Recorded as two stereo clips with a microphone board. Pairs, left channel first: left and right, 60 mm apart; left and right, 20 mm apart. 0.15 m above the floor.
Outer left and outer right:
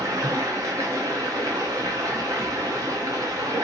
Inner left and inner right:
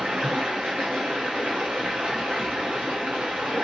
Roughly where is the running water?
Right.